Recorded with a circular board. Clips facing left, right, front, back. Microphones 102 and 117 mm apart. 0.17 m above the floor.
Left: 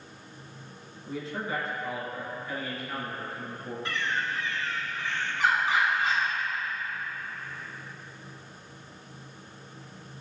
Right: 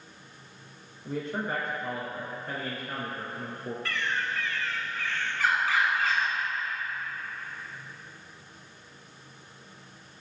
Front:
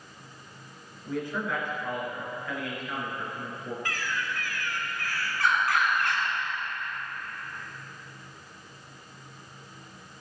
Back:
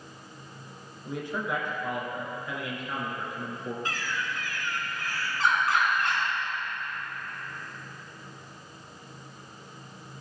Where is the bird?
140° left, 1.4 m.